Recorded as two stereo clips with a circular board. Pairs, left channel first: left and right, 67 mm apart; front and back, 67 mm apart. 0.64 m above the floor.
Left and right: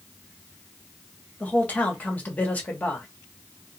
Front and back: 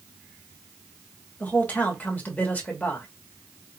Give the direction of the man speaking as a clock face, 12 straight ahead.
11 o'clock.